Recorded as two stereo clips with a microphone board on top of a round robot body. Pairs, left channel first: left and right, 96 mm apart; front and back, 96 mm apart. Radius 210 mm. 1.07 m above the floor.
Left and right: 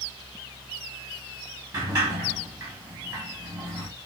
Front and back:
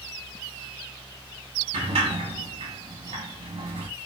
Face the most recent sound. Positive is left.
turn(degrees=-150)